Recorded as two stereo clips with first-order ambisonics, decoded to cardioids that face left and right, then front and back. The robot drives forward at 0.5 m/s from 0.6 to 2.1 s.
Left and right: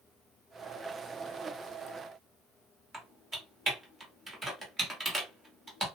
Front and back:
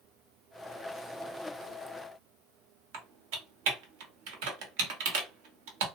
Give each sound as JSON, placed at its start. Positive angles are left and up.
{"t": 2.9, "sound": "typing on a keyboard", "azimuth_deg": -175, "distance_m": 1.0}